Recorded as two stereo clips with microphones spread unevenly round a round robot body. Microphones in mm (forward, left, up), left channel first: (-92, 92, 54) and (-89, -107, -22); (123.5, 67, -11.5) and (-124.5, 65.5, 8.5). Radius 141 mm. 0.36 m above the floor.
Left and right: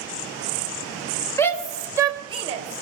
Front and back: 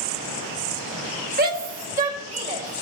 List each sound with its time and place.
1.4 s a shout: 165° right, 1.6 m; by 2.8 s 110° right, 2.5 m